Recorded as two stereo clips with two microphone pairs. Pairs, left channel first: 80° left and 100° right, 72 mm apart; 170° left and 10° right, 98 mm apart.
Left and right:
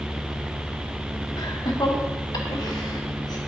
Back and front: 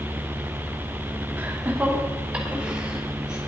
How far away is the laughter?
About 1.8 m.